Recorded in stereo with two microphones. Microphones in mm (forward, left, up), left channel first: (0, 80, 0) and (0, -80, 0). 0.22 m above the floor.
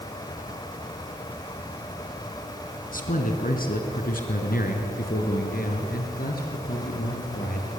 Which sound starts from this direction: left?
A man speaking, at 2.9 s.